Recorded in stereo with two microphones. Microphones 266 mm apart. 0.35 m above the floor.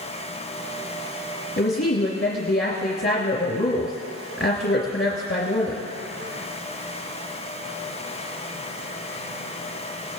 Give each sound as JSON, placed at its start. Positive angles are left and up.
{"t": 1.6, "sound": "a woman speaking", "side_deg": 40, "distance_m": 2.5}